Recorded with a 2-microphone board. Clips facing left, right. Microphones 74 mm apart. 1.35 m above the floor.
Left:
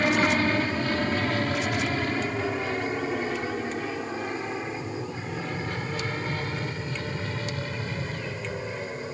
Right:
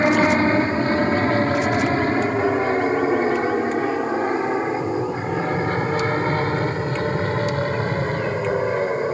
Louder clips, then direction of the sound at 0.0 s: Right 6 dB; 30° right (ahead or behind).